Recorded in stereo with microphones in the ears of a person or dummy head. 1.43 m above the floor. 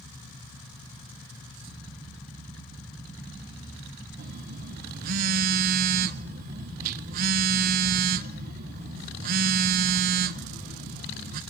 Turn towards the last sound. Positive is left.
turn(degrees=-50)  # may be behind; listen again after turning